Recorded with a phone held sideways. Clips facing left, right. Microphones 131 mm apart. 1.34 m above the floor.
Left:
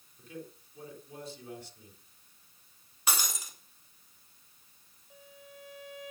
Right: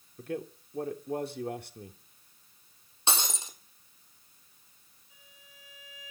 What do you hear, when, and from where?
0.2 s a man speaking: 65° right (ahead or behind), 3 m
3.1 s breaking glass: 25° right (ahead or behind), 4 m
5.1 s a violin: 60° left (ahead or behind), 9 m